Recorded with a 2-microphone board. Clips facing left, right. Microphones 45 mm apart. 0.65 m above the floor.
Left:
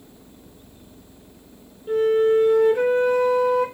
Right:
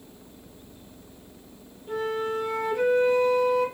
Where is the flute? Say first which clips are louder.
Left 11 dB; 55° left (ahead or behind), 2.5 m.